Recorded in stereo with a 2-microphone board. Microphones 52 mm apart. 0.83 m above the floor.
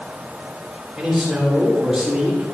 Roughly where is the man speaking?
Centre.